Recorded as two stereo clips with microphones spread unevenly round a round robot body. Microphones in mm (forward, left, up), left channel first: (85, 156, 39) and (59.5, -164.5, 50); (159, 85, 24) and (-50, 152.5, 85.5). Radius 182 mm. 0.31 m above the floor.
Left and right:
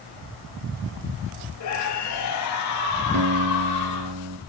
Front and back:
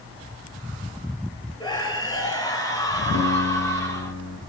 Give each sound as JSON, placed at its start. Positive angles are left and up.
{"t": 1.6, "sound": "a scream", "azimuth_deg": 50, "distance_m": 9.0}
{"t": 3.1, "sound": "a guitar", "azimuth_deg": -60, "distance_m": 3.0}